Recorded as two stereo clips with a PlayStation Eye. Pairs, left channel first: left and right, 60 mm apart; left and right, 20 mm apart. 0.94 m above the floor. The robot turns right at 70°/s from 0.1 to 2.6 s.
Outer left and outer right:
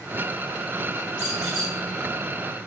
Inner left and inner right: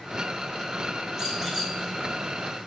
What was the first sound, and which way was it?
A squeak, 30° right.